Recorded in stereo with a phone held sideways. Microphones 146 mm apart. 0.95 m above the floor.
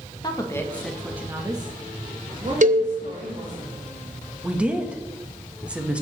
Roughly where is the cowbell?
Right.